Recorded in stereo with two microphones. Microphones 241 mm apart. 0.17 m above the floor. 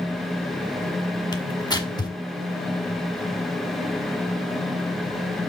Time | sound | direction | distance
1.3 | tearing paper | 15° left (ahead or behind) | 1.5 m